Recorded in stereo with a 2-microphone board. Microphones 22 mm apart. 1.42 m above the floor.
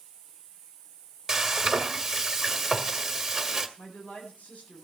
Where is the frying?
15° right (ahead or behind), 1.5 m.